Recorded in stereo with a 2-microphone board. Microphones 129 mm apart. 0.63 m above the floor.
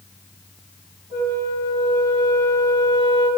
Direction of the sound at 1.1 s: 30° right (ahead or behind).